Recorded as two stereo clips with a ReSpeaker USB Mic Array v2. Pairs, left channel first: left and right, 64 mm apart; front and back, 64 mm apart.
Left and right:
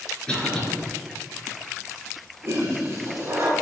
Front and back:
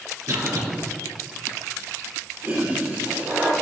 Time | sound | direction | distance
0.3 | a cough | 165° left | 4 m
2.4 | a toilet flushing | 130° right | 2.5 m